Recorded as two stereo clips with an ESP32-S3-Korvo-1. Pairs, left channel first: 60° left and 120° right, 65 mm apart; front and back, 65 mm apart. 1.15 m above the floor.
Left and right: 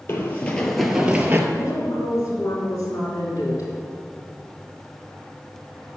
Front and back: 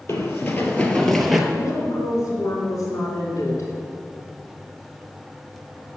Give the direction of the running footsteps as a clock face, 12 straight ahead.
11 o'clock.